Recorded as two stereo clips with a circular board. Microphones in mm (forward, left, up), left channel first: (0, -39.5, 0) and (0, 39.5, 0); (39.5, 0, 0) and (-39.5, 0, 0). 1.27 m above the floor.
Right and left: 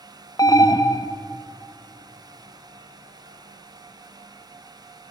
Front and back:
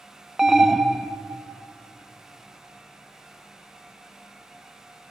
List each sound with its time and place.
0.4 s an alarm: 95° right, 0.8 m